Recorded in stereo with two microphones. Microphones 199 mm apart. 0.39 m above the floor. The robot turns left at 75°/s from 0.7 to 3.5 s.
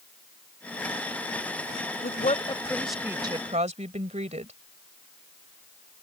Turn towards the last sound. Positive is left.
turn(degrees=-45)